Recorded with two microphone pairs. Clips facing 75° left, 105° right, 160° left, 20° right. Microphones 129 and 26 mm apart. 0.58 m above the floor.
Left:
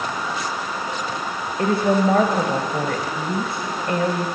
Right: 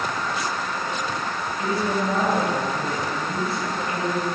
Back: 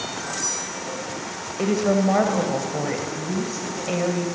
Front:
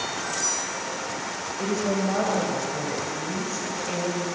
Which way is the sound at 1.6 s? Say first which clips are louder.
Left 7 dB, back 6 dB; 90° left.